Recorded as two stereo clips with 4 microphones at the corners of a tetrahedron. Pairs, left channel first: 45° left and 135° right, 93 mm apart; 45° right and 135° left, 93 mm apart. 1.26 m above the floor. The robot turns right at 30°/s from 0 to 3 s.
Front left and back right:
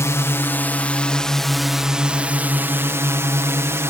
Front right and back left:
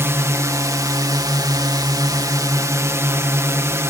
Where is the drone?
85° left; by 3.9 s 175° left.